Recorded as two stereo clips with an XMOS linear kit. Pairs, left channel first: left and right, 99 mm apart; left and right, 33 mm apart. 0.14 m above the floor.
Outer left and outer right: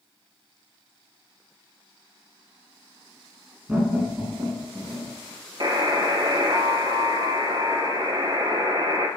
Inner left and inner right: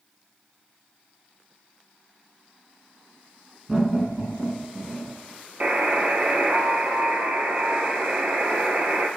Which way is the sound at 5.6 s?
50° right (ahead or behind).